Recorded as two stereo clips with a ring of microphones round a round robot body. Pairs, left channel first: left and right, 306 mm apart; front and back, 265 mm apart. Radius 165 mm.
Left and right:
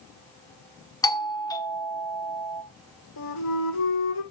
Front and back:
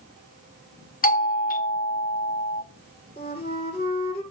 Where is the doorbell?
20° left, 1.3 m.